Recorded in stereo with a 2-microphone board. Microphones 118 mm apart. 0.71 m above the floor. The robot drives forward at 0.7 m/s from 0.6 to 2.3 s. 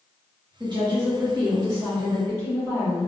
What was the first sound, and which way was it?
A woman speaking, 40° right (ahead or behind).